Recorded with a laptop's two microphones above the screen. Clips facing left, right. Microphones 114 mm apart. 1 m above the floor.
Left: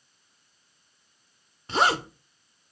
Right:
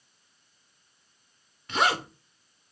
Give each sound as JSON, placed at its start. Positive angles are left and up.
{"t": 1.7, "sound": "a zipper", "side_deg": 30, "distance_m": 1.1}